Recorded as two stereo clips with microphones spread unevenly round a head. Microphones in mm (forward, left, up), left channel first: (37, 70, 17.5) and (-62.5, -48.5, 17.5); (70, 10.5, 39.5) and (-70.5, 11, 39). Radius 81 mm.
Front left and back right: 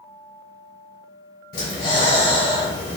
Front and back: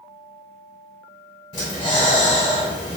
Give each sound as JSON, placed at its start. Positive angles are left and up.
{"t": 1.5, "sound": "breathing", "azimuth_deg": 50, "distance_m": 1.7}